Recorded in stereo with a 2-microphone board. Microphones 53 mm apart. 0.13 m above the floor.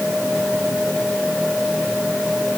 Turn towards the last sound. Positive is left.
No sound to turn to.